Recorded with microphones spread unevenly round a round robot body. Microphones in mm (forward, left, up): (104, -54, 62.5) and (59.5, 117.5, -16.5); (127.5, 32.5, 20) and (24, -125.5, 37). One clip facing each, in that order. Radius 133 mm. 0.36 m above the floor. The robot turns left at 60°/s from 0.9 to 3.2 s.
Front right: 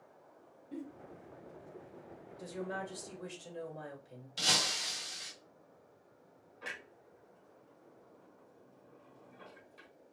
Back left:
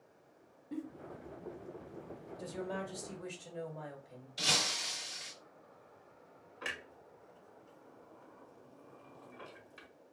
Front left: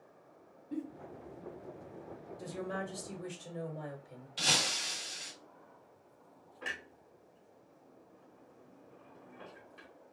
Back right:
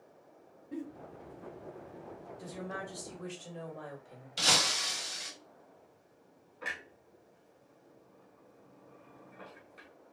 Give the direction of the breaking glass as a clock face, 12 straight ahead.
3 o'clock.